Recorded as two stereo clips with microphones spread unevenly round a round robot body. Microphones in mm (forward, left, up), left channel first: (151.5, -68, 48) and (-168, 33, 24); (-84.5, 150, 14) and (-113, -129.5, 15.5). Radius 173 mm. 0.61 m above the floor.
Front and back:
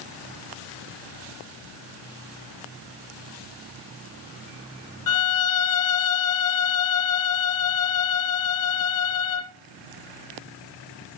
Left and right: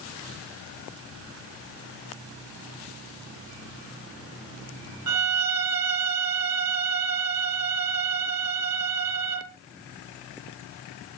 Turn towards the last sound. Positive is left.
turn(degrees=-60)